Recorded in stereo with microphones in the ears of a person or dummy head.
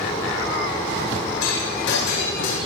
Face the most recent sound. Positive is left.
turn(degrees=75)  # may be behind; listen again after turning